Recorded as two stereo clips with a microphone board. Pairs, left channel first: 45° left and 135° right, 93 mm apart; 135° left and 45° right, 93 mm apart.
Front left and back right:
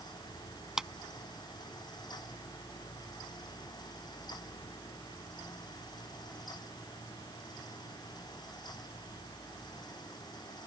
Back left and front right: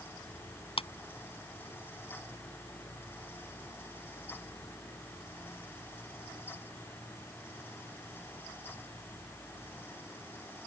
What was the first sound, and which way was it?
A clap, 140° left.